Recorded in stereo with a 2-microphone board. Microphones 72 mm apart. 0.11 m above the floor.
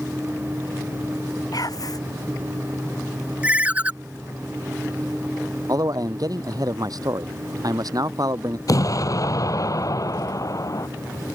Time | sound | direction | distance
1.5 | whispering | 55° left (ahead or behind) | ?
3.4 | a ringtone | 20° right (ahead or behind) | ?
5.7 | a man speaking | 55° right (ahead or behind) | ?
8.7 | an explosion | 50° left (ahead or behind) | ?